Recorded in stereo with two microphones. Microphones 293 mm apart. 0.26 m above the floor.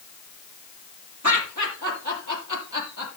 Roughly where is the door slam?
No door slam in this recording.